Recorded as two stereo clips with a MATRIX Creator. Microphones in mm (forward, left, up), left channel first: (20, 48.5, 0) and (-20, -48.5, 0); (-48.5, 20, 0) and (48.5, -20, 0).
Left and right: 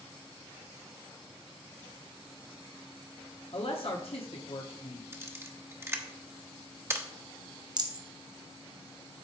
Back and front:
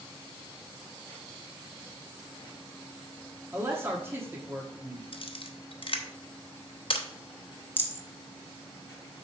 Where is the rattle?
140° right, 0.8 m.